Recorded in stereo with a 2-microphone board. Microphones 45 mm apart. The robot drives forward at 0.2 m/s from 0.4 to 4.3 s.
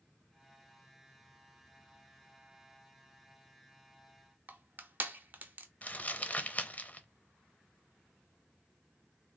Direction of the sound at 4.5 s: 40° right (ahead or behind).